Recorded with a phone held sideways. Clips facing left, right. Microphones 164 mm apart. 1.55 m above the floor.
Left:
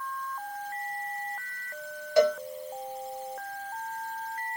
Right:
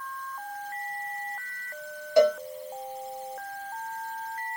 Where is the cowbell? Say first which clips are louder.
Right 2 dB; 25° right (ahead or behind), 2 m.